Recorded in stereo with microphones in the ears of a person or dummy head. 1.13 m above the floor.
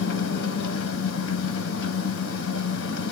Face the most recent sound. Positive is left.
turn(degrees=85)